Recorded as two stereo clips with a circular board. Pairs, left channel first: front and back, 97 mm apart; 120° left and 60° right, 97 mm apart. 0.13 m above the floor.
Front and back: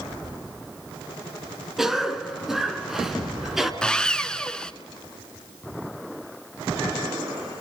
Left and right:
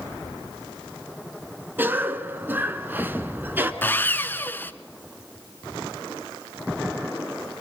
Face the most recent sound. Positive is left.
turn(degrees=75)